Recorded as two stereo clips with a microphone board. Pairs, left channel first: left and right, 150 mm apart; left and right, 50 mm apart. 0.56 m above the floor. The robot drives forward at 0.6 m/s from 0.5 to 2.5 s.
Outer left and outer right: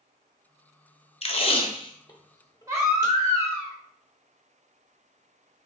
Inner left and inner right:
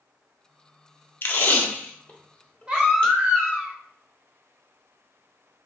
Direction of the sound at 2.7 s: 25° right (ahead or behind).